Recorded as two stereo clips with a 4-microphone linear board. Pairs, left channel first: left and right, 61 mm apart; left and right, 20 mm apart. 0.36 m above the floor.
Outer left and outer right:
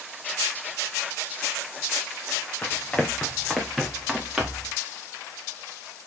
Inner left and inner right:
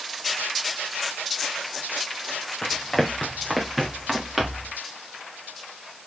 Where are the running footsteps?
25° left (ahead or behind), 2.5 m; by 4.7 s 10° right (ahead or behind), 3.5 m.